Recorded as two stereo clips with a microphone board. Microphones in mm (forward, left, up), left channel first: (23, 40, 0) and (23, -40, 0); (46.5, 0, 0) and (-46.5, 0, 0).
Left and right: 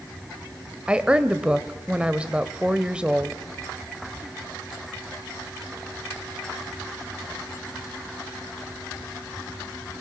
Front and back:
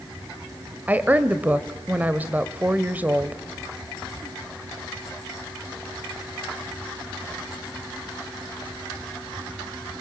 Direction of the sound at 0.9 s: 145° right.